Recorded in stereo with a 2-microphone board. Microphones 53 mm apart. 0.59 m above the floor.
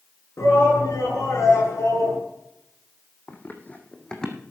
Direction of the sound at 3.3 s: 35° left (ahead or behind).